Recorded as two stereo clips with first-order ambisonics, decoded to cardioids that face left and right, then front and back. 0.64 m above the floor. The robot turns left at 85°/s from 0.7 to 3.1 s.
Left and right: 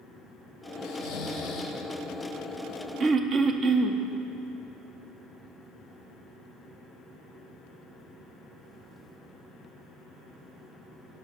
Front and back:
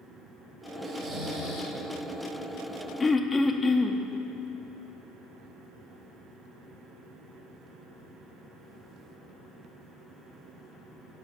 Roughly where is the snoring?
Left.